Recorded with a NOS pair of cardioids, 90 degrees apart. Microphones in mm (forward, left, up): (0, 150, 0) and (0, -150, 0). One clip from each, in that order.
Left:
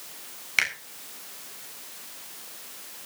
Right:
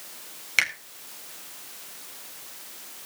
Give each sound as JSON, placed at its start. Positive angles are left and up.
{"t": 0.6, "sound": "a finger snap", "azimuth_deg": -15, "distance_m": 4.5}